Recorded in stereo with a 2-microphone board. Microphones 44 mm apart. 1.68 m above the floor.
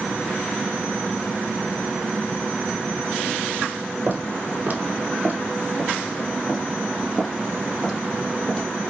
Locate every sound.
4.1 s footsteps: 45° right (ahead or behind), 2.5 m; by 8.9 s 25° left (ahead or behind), 3 m